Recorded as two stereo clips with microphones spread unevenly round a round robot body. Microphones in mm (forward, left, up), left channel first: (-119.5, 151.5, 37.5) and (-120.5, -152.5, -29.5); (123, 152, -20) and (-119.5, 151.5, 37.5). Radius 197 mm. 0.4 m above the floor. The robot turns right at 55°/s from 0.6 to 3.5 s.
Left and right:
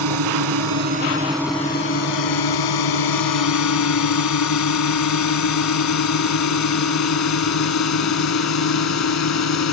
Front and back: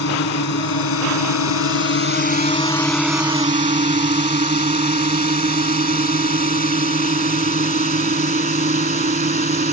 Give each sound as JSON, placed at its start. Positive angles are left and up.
{"t": 0.0, "sound": "a drone", "azimuth_deg": -50}